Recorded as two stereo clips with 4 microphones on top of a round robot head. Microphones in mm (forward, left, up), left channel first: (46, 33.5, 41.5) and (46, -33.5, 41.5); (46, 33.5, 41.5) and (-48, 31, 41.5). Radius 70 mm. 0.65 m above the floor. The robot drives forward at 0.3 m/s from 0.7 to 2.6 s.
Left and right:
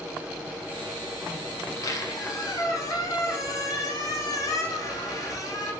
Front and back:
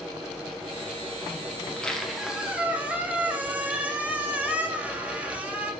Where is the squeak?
75° left, 0.7 m; by 5.7 s 110° left, 0.7 m.